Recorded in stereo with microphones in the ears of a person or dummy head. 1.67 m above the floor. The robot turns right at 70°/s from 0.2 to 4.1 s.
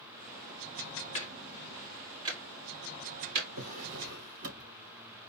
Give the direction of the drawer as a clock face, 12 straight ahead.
3 o'clock.